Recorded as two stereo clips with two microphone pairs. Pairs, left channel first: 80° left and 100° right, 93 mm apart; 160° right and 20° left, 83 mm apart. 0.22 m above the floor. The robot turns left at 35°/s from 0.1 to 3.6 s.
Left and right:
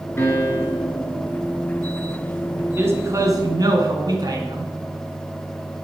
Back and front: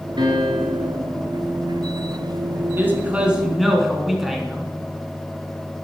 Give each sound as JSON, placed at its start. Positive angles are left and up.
{"t": 0.2, "sound": "a piano", "azimuth_deg": 20, "distance_m": 2.5}
{"t": 2.8, "sound": "a man speaking", "azimuth_deg": -40, "distance_m": 2.5}